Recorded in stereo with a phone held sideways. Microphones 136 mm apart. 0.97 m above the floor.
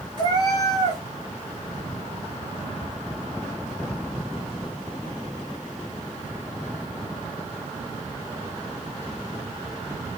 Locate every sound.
0.2 s a cat meowing: 30° left (ahead or behind), 2.5 m